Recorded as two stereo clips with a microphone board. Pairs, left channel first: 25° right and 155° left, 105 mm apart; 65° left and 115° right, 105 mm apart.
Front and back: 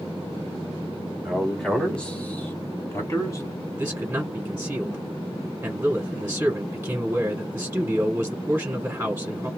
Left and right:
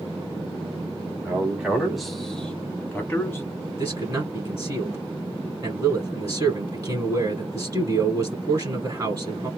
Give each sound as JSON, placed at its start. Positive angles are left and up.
{"t": 1.2, "sound": "a man speaking", "azimuth_deg": -125, "distance_m": 1.1}
{"t": 3.8, "sound": "a man speaking", "azimuth_deg": -140, "distance_m": 1.9}